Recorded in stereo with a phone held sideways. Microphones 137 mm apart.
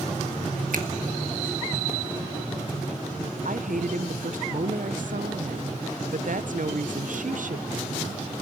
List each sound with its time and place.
0.7 s a finger snap: 75° right (ahead or behind), 1.8 m
3.5 s a woman speaking: 70° right (ahead or behind), 0.8 m